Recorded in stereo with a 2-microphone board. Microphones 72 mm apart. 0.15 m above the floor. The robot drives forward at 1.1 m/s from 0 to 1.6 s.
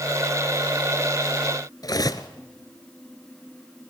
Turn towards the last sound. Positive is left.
turn(degrees=55)  # may be behind; listen again after turning